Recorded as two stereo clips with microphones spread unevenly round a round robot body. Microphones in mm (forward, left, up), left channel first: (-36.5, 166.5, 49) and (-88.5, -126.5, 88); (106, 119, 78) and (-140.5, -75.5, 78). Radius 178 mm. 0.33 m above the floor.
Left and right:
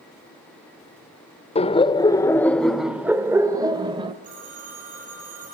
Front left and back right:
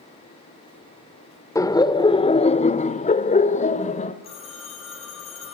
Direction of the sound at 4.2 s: 35° right.